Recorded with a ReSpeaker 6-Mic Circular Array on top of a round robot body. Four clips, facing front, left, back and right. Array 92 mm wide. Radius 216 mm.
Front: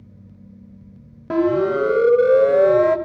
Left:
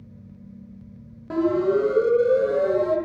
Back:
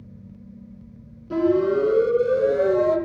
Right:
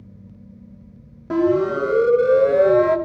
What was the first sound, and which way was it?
A siren, 15° right.